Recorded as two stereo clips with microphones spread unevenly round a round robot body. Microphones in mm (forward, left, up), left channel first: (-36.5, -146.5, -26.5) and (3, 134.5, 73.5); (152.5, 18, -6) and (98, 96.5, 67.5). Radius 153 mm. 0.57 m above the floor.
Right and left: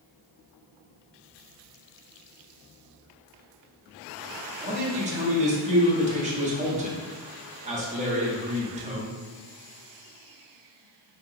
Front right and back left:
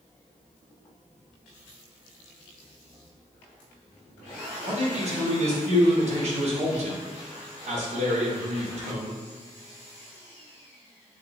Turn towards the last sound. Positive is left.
turn(degrees=160)